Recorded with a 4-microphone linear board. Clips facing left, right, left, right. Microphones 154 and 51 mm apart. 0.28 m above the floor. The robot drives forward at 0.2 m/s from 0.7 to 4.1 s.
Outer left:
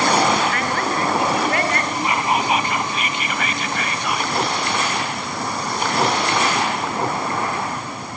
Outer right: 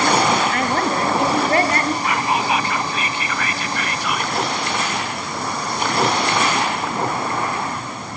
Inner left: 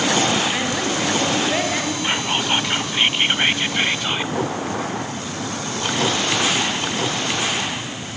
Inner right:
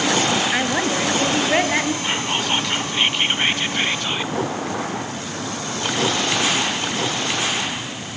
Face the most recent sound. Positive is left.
turn(degrees=20)  # may be behind; listen again after turning